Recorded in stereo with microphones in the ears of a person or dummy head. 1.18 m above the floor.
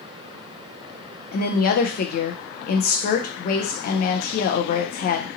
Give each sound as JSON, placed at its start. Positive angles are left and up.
{"t": 1.3, "sound": "a woman speaking", "side_deg": 50, "distance_m": 0.5}